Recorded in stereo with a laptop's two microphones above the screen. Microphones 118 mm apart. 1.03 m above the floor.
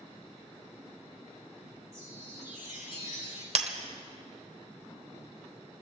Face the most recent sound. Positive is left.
turn(degrees=-60)  # may be behind; listen again after turning